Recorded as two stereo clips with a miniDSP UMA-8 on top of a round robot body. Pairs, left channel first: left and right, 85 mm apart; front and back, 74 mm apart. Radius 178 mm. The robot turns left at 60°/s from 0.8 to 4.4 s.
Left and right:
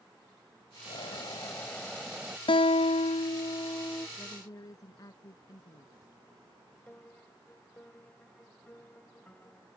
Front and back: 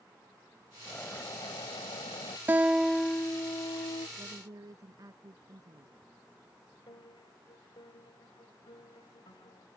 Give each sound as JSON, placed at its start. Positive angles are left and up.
{"t": 0.8, "sound": "a bird", "azimuth_deg": 70}
{"t": 2.5, "sound": "a guitar", "azimuth_deg": 115}
{"t": 4.2, "sound": "a woman speaking", "azimuth_deg": 150}
{"t": 6.9, "sound": "a piano", "azimuth_deg": 15}